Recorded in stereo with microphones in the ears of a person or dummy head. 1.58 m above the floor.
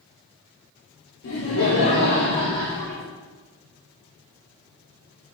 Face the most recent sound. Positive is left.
turn(degrees=15)  # may be behind; listen again after turning